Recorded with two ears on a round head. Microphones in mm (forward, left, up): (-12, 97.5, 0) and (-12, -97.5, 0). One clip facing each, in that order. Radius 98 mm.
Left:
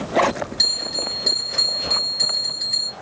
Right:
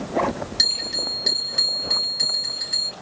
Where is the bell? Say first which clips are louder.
Left 3 dB; 10° right (ahead or behind), 1.2 m.